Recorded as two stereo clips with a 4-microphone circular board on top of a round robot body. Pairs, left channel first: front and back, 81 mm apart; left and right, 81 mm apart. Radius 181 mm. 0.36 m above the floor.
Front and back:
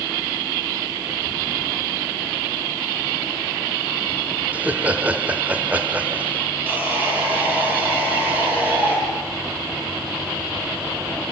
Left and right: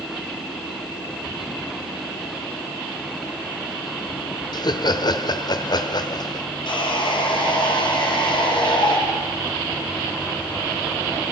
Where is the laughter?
110° left, 1.8 m.